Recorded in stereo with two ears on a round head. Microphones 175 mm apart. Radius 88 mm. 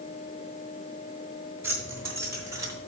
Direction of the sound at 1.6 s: 10° right (ahead or behind).